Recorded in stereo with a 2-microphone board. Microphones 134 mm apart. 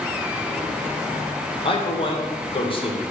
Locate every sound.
1.6 s a man speaking: 40° left (ahead or behind), 0.7 m